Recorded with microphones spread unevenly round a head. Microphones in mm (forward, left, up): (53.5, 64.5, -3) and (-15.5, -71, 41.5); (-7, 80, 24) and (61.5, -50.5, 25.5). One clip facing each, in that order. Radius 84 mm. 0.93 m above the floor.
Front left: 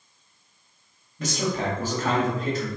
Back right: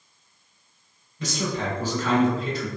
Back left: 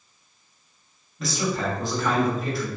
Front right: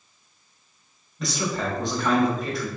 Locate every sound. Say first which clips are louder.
1.2 s a man speaking: front left 1 dB, back left 1 dB; 30° left, 1.5 m